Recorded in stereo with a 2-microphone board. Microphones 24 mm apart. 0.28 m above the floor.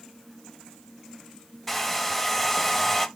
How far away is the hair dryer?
About 0.7 m.